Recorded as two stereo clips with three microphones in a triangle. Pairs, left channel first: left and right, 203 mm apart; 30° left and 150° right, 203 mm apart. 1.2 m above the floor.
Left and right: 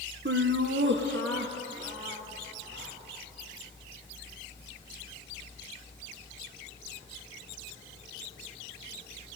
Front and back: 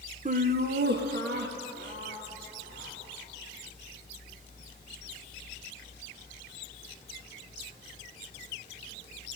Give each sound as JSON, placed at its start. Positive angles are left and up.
{"t": 0.2, "sound": "laughter", "azimuth_deg": -100, "distance_m": 0.8}